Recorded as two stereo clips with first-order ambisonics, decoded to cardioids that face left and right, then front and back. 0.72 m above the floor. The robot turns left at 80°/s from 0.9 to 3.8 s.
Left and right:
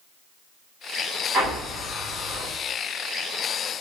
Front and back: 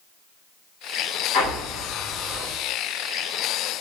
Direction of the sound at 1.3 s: 35° right.